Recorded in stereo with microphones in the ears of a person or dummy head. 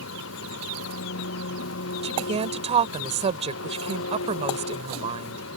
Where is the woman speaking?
35° right (ahead or behind).